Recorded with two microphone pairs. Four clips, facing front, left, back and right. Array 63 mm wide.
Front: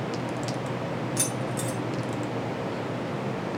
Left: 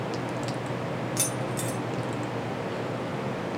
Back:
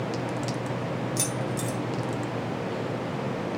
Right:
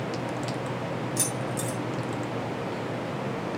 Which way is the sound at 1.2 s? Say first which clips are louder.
Even, even; 65° left.